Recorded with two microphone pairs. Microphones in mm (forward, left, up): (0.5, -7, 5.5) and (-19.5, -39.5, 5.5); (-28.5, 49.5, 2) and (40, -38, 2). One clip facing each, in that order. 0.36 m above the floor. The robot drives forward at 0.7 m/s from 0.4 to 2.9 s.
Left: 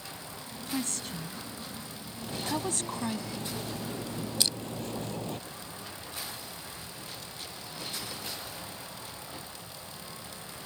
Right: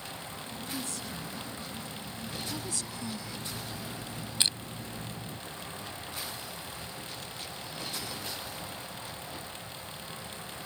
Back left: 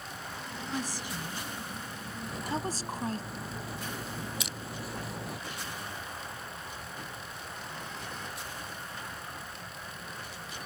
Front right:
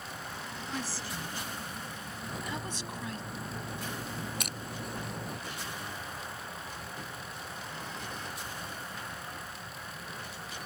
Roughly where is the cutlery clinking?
Ahead left.